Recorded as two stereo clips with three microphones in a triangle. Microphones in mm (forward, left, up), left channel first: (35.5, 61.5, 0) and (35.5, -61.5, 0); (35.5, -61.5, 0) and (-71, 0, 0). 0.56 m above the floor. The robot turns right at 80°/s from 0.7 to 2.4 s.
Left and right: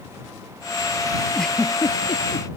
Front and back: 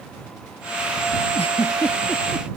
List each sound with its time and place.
1.4 s a giggle: straight ahead; by 2.5 s 80° left